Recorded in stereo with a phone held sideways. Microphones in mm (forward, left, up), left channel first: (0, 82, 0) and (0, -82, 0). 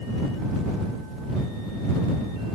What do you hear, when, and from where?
Only background noise.